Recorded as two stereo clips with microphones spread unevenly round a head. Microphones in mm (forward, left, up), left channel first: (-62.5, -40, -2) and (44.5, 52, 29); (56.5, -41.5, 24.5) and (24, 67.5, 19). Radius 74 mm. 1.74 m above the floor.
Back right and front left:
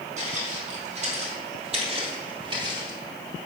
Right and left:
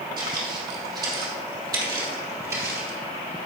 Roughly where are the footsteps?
Ahead left.